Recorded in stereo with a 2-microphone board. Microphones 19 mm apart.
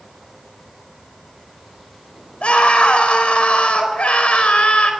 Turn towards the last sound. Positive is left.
turn(degrees=80)